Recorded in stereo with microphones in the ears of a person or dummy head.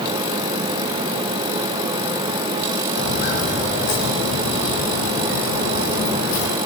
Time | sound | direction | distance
3.0 | footsteps | 50° left (ahead or behind) | 3 m